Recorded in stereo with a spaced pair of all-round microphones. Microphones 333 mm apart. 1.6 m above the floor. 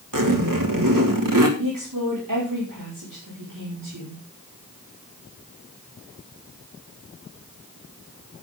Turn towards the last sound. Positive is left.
turn(degrees=-75)  # may be behind; listen again after turning